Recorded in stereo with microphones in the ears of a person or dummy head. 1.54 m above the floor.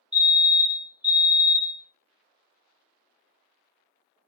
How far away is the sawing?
No sawing in this recording.